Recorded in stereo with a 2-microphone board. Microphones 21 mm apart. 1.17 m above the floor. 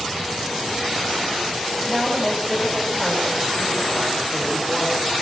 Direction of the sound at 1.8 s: 20° right (ahead or behind).